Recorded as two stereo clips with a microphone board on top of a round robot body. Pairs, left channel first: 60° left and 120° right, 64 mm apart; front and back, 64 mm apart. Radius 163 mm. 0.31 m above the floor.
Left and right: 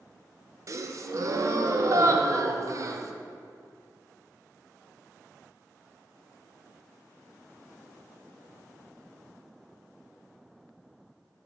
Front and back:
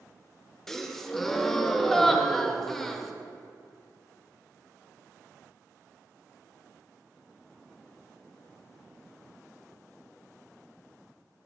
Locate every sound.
0.7 s a gasp: 85° right, 0.5 m